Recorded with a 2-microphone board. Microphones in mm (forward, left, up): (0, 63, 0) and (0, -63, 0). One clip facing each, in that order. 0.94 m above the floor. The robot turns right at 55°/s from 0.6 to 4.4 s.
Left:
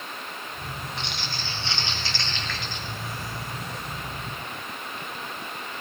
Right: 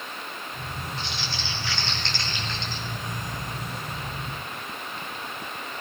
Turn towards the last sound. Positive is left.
turn(degrees=-55)